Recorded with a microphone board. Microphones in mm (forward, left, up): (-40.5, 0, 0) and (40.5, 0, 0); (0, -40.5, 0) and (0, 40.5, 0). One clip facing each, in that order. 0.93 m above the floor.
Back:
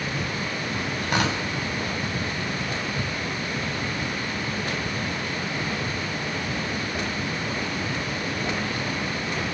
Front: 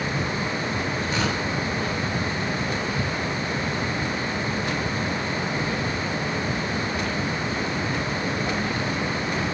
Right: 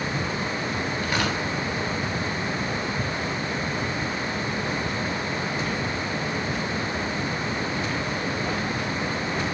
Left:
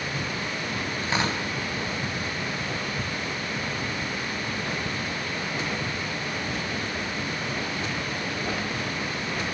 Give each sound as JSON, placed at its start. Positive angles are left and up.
{"t": 1.0, "sound": "tearing paper", "azimuth_deg": 155, "distance_m": 9.0}